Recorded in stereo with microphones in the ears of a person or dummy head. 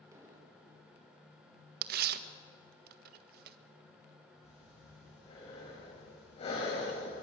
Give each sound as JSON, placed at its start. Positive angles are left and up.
{"t": 0.1, "sound": "an explosion", "side_deg": -15, "distance_m": 5.0}
{"t": 1.8, "sound": "tearing paper", "side_deg": -60, "distance_m": 1.5}
{"t": 4.4, "sound": "breathing", "side_deg": 35, "distance_m": 9.0}